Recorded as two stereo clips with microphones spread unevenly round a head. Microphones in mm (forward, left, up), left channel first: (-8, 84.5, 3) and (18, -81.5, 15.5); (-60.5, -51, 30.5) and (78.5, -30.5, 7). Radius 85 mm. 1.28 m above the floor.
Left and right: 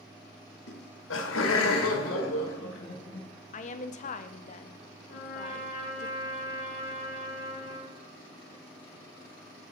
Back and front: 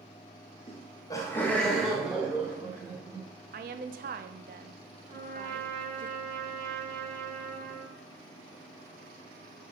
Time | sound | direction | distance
0.7 | laughter | 130° left | 1.0 m
3.5 | a woman speaking | 50° left | 0.6 m
5.1 | a trumpet | 60° left | 2.5 m